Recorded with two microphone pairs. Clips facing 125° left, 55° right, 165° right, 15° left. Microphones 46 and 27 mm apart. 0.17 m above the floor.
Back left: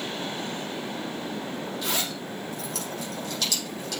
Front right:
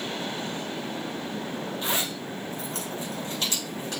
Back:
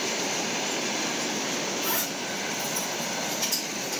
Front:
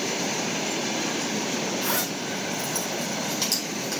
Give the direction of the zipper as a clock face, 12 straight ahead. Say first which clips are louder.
Front right 1 dB, front 2 dB; 12 o'clock.